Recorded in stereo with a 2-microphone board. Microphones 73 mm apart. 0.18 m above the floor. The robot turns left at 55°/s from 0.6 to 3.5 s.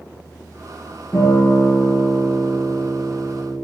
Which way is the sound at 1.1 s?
140° left.